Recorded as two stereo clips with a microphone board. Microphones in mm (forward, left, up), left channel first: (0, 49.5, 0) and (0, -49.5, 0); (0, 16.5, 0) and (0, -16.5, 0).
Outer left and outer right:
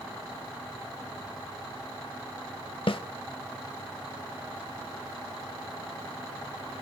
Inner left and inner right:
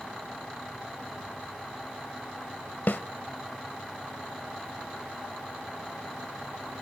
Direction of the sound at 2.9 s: 65° left (ahead or behind).